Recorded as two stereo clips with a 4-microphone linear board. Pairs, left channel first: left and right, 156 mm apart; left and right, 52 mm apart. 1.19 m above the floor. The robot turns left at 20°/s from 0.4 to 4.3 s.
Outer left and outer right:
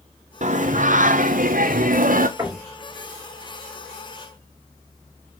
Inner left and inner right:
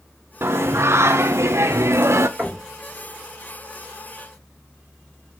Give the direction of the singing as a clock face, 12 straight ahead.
2 o'clock.